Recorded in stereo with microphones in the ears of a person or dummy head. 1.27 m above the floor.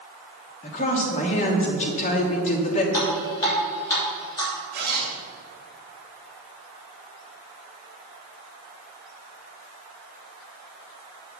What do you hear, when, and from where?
0.6 s a woman speaking: 35° left (ahead or behind), 1.4 m
2.9 s dripping: 15° left (ahead or behind), 3 m
4.7 s a zipper: 55° right (ahead or behind), 2.5 m